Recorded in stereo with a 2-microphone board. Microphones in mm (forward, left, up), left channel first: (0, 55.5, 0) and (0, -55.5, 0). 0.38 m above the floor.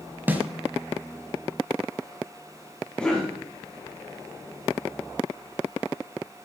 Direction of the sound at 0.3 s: 15° right (ahead or behind).